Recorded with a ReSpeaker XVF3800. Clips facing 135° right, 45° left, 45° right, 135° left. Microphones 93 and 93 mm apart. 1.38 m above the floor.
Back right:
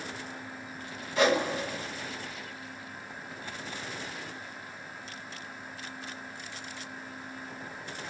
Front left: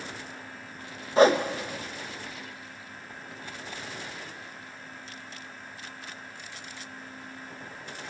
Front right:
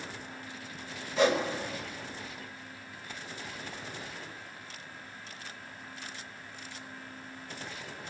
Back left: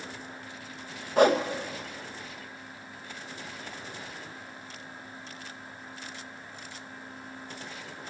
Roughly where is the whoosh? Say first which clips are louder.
Front left 6 dB, back left 5 dB; left.